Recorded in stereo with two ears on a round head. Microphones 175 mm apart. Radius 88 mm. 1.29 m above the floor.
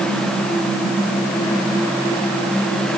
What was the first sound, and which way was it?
Only background noise.